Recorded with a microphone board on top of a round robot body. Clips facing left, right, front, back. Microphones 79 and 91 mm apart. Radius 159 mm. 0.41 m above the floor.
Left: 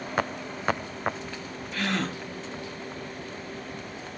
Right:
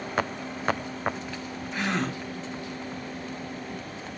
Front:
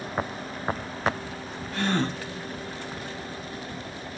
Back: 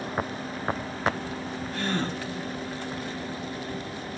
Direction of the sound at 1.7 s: 20° right.